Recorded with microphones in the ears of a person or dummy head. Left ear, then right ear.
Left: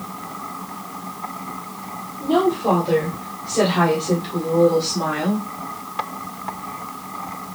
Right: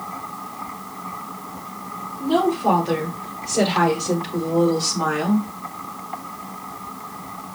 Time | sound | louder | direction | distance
2.2 | a woman speaking | left 1 dB | 15° right (ahead or behind) | 1.4 m